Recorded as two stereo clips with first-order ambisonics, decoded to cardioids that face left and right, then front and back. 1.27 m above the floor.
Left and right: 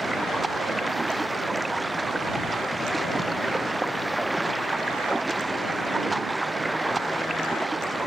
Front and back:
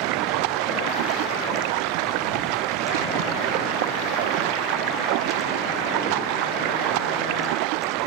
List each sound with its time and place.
0.0 s running water: 175° right